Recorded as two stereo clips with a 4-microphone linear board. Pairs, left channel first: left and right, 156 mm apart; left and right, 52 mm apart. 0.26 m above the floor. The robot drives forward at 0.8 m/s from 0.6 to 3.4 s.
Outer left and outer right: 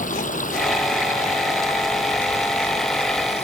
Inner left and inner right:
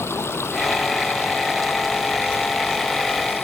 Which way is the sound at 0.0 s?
55° left (ahead or behind).